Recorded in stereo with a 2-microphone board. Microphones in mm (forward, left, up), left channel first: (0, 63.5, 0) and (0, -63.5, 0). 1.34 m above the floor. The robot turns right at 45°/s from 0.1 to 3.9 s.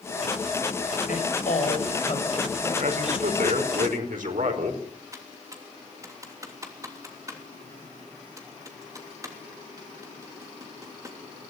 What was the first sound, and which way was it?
A woman speaking, 95° left.